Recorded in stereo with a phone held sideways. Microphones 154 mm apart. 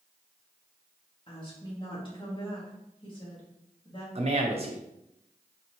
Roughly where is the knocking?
I don't hear knocking.